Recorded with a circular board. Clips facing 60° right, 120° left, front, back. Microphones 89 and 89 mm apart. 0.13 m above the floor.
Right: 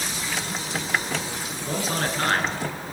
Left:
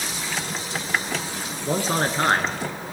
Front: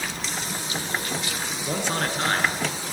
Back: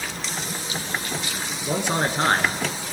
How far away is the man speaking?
About 1.2 m.